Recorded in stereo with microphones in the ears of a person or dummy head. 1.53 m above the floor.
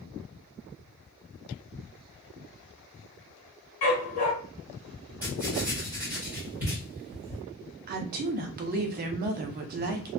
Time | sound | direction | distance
3.8 | a dog barking | 35° left (ahead or behind) | 1.7 m
5.2 | writing | 10° right (ahead or behind) | 1.2 m
7.9 | a woman speaking | 45° right (ahead or behind) | 0.6 m